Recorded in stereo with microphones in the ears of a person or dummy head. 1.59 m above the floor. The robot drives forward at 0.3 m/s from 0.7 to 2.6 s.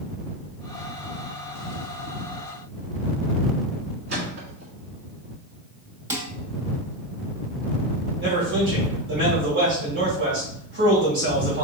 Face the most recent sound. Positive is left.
turn(degrees=-75)  # may be behind; listen again after turning